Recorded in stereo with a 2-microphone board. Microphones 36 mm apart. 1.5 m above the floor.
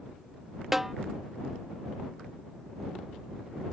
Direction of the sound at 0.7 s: 10° right (ahead or behind).